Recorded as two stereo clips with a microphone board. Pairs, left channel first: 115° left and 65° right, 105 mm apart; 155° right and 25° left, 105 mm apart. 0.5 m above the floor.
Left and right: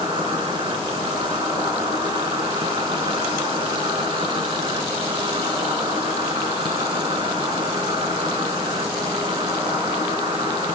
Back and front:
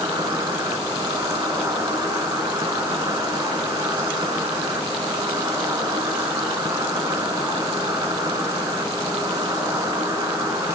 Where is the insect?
30° right, 3 m.